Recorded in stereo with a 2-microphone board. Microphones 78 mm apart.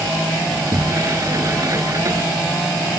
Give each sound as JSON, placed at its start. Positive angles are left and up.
{"t": 0.5, "sound": "a sliding door", "side_deg": -45}